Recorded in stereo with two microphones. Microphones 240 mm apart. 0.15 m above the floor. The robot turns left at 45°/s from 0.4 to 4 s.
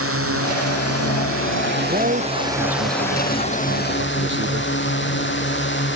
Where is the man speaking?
35° right; by 4.7 s 130° right.